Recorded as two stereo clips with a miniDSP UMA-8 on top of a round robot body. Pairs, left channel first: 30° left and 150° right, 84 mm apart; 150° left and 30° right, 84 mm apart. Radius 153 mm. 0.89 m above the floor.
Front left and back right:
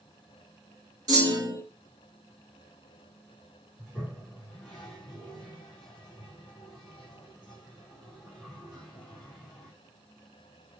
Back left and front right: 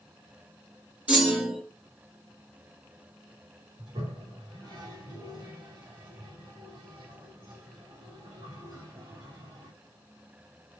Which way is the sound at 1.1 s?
105° right.